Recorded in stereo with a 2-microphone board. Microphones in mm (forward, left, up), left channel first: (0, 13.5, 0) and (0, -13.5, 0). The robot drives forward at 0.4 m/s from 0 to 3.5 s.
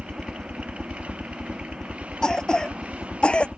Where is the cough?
30° left (ahead or behind); by 3.5 s 50° left (ahead or behind).